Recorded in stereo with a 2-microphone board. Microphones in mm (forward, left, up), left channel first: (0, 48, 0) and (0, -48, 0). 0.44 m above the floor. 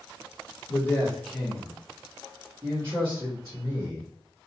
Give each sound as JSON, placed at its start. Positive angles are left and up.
{"t": 0.7, "sound": "a man speaking", "side_deg": 20, "distance_m": 0.9}